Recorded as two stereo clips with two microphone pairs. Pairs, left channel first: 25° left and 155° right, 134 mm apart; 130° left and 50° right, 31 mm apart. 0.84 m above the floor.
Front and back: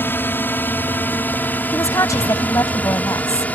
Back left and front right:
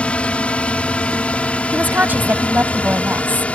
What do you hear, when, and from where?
0.0 s a drone: 95° left; by 3.5 s 100° left
1.7 s a woman speaking: 40° right